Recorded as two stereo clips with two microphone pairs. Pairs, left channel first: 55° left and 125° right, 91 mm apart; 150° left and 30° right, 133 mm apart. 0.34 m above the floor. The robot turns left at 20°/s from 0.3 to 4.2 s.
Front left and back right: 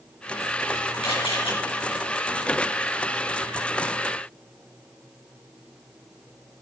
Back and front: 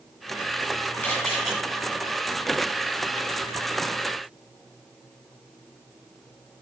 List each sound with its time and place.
1.0 s a camera shutter: 70° left, 6 m; by 1.5 s 60° left, 6 m